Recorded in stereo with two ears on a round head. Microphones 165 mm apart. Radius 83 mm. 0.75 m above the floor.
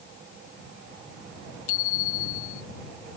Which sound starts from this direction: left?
A bicycle bell, at 1.7 s.